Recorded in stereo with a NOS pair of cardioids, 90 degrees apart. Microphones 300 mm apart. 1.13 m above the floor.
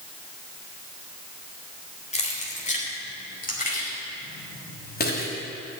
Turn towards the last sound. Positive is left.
turn(degrees=35)